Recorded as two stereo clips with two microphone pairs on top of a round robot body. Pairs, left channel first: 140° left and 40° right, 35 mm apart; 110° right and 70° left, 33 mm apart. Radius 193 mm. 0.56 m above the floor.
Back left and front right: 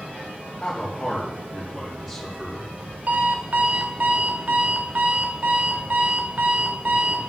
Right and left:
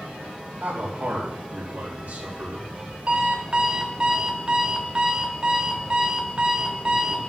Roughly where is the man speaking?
Left.